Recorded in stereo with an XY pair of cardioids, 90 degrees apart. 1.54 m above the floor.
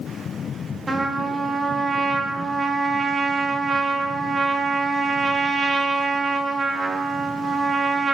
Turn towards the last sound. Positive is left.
turn(degrees=-35)